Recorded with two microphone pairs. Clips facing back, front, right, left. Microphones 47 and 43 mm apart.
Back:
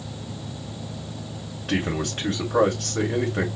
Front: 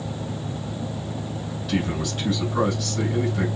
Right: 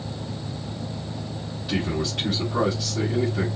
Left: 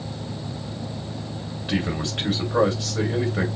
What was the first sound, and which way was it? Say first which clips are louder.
A man speaking: back 1 dB, even; 150° left.